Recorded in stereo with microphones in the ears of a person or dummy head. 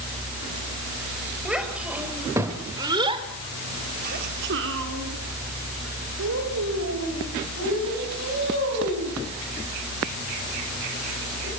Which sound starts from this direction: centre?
A child speaking, at 1.4 s.